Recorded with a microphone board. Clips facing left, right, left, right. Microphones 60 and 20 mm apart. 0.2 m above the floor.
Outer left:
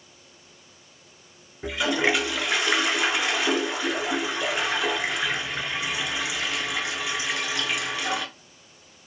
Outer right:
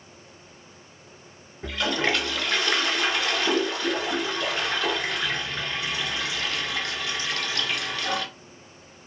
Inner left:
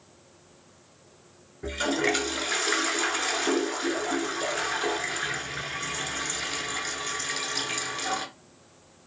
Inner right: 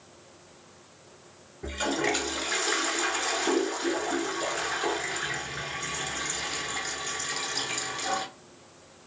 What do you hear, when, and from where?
1.6 s a toilet flushing: 15° left (ahead or behind), 0.6 m